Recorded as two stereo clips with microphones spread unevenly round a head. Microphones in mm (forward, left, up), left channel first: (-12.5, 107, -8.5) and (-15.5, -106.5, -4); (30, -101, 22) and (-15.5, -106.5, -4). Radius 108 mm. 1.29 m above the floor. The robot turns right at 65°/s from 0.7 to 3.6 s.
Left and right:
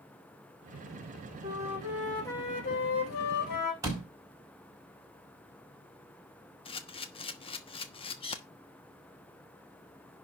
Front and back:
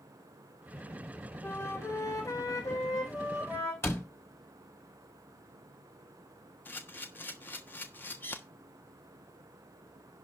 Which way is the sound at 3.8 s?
15° right.